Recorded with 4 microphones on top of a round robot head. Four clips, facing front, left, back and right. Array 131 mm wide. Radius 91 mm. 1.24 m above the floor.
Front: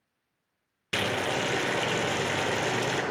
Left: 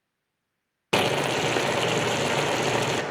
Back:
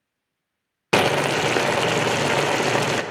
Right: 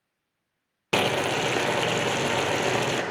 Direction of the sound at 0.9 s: 175° left.